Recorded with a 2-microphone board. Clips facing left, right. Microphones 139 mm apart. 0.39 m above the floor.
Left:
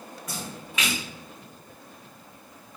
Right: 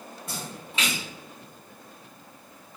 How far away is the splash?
About 1.3 m.